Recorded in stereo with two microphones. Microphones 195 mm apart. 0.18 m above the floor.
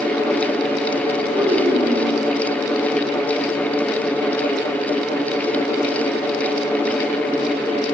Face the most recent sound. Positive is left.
turn(degrees=-30)  # may be behind; listen again after turning